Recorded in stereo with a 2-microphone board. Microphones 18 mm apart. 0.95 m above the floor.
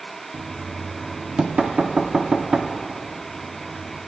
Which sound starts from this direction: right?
Knocking, at 0.3 s.